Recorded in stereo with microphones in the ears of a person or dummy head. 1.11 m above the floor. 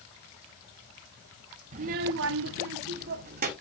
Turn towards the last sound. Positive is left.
turn(degrees=-45)  # may be behind; listen again after turning